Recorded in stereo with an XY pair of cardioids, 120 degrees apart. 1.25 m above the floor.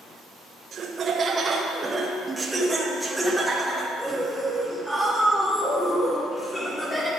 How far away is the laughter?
About 0.9 m.